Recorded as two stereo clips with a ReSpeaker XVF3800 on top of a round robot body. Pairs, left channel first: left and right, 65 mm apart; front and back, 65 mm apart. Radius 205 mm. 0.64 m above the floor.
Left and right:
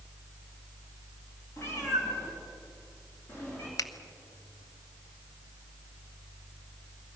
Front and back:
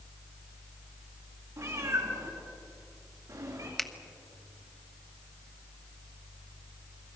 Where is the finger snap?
85° left, 1.4 m.